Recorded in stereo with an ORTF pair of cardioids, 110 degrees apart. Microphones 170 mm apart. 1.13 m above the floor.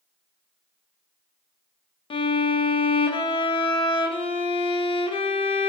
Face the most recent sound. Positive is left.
turn(degrees=30)